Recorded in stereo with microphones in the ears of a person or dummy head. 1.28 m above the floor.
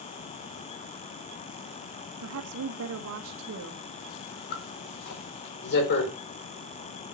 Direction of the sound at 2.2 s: 75° right (ahead or behind).